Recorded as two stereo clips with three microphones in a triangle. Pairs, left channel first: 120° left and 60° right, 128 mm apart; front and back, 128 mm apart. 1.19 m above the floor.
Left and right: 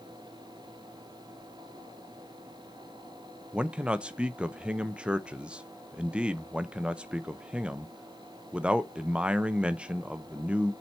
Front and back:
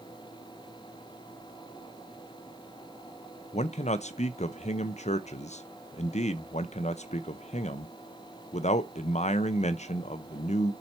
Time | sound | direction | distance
3.5 | a man speaking | 20° left | 0.5 m